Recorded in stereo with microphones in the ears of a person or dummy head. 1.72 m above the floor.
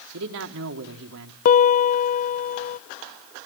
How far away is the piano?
About 0.5 m.